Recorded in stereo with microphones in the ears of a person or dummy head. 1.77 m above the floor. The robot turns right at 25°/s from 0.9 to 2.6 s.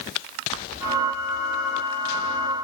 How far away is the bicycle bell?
No bicycle bell in this recording.